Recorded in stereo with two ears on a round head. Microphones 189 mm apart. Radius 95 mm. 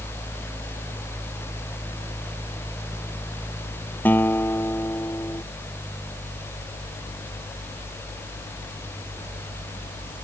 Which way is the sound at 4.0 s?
10° left (ahead or behind).